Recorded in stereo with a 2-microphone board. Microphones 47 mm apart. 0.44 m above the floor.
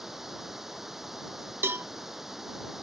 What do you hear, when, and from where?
0.0 s running water: 5° right (ahead or behind)
1.6 s a cowbell: 60° right (ahead or behind)